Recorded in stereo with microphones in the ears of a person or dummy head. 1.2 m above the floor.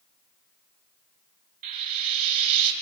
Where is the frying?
50° right (ahead or behind), 2.5 m.